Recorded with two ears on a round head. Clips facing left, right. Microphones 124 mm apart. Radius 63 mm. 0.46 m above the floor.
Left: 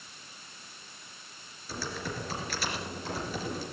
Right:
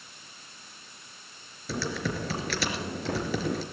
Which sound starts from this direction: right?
Typing on a keyboard, at 1.7 s.